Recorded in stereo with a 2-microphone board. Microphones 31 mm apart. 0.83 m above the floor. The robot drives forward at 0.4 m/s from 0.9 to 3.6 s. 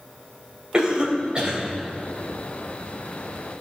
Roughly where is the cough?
Right.